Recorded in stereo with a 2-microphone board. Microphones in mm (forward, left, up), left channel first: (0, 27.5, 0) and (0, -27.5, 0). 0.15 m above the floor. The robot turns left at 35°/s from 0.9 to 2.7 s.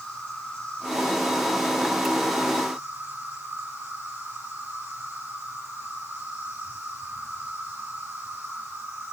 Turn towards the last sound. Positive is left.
turn(degrees=-35)